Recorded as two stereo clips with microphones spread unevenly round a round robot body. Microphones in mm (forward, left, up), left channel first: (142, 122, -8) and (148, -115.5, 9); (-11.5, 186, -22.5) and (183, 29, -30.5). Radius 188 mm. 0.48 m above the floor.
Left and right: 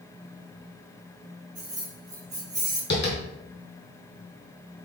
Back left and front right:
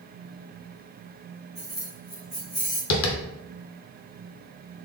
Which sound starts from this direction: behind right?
Keys jangling, at 1.6 s.